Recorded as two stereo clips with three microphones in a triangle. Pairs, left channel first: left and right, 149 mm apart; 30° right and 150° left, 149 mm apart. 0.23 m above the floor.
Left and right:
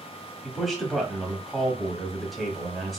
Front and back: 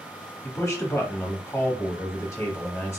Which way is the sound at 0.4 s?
Straight ahead.